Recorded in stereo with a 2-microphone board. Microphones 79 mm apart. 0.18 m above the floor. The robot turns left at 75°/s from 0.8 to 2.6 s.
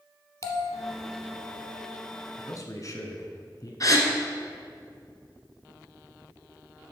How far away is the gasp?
About 1.6 m.